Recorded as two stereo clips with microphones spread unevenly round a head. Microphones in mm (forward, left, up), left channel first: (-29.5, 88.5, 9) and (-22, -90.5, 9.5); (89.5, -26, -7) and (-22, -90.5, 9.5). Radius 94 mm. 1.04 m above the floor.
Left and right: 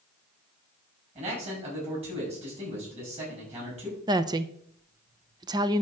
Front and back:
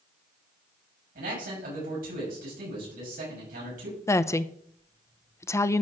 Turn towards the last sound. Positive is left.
turn(degrees=-25)